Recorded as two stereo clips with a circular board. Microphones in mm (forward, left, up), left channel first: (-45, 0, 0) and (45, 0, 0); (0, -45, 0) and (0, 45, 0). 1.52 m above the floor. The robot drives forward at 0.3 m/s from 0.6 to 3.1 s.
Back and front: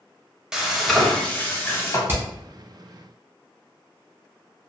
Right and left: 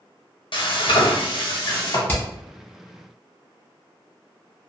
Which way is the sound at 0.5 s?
85° right.